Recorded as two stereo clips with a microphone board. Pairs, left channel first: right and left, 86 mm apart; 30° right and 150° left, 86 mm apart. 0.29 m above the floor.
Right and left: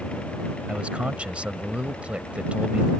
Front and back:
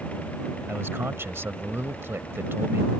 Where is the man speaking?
150° left.